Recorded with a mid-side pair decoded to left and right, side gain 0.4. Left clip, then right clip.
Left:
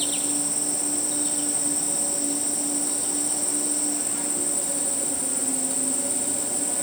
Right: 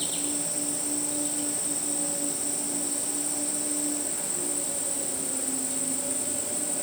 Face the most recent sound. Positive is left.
turn(degrees=30)